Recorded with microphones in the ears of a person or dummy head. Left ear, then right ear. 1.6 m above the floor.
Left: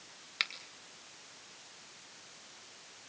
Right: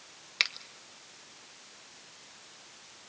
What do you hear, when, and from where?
0.4 s a finger snap: 10° right (ahead or behind), 2.5 m